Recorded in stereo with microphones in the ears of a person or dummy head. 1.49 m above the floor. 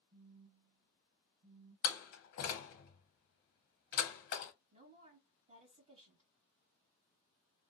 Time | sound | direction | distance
0.1 | a phone buzzing | 50° right (ahead or behind) | 1.4 m
1.8 | a door slam | 50° left (ahead or behind) | 0.6 m
4.7 | a woman speaking | 25° right (ahead or behind) | 1.3 m